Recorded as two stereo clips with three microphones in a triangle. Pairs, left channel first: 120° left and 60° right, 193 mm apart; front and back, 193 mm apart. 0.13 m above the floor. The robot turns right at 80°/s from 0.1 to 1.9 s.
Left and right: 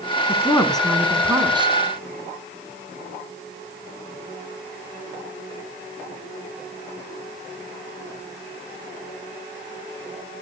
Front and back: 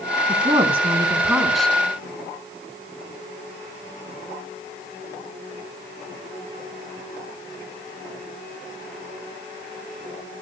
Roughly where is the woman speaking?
Behind.